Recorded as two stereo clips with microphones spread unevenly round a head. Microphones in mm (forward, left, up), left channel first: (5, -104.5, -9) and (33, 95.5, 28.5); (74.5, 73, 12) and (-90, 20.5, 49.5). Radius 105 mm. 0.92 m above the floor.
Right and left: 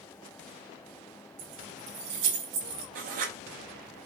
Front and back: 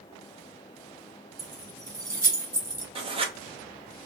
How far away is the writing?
About 0.7 m.